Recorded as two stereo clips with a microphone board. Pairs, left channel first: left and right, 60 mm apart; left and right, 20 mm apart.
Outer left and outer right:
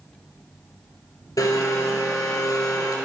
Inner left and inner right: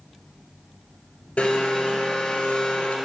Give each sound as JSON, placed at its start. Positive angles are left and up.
{"t": 1.4, "sound": "a blender", "side_deg": 80, "distance_m": 1.5}